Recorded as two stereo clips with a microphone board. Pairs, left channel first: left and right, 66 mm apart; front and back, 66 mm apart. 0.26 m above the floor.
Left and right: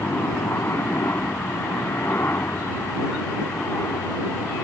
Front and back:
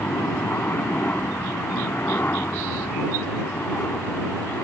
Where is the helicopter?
45° left.